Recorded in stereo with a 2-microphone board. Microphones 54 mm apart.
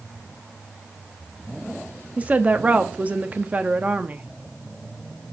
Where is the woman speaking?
30° right (ahead or behind), 0.8 m.